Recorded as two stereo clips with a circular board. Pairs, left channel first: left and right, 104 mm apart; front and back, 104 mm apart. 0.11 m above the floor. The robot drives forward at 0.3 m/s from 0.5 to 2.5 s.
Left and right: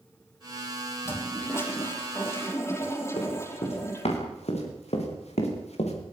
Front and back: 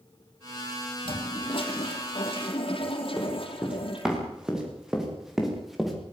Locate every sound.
1.1 s a toilet flushing: 25° left, 4.5 m
3.2 s running footsteps: 100° left, 9 m; by 6.0 s 90° left, 5.5 m